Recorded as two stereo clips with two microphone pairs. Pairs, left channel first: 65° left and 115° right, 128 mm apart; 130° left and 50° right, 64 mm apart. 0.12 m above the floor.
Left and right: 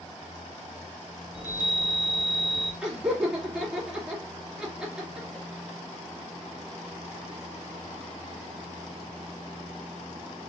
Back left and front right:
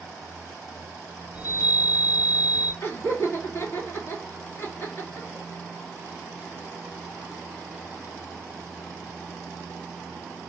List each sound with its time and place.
1.3 s a chime: 120° left, 4 m
2.8 s laughter: 160° left, 2.5 m